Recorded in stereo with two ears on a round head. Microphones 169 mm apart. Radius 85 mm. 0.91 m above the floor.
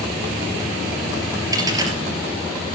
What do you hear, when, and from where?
1.5 s a dropped coin: 20° right (ahead or behind), 3.5 m